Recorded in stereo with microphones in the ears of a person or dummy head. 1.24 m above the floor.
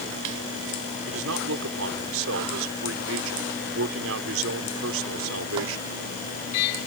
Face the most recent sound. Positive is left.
turn(degrees=-75)  # may be behind; listen again after turning